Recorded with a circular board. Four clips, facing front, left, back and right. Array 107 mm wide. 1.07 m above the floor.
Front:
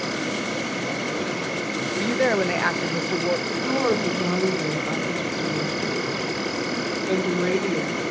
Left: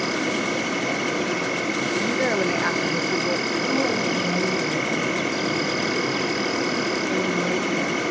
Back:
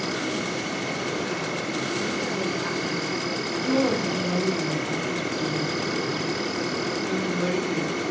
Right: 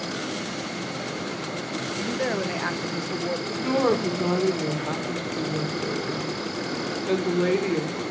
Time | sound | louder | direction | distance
0.0 | an insect | left 6 dB, front 1 dB | 90° left | 2 m
2.0 | a woman speaking | left 3 dB, front 6 dB | 10° left | 0.8 m
3.5 | a woman speaking | right 4 dB, back 4 dB | 60° right | 4 m